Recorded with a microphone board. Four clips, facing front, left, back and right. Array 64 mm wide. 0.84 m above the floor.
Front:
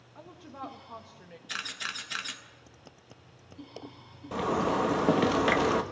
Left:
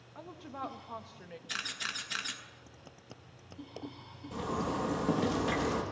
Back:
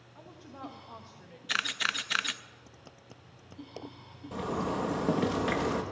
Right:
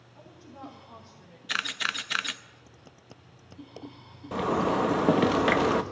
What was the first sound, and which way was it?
A woman speaking, 70° left.